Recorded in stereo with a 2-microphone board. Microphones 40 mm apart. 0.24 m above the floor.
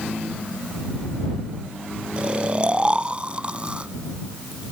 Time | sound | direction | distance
2.2 | snoring | 30° right (ahead or behind) | ?